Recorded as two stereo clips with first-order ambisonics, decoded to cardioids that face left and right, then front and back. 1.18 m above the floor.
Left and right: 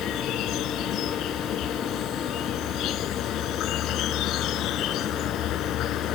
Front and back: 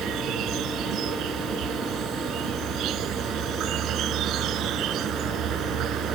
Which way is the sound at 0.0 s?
135° left.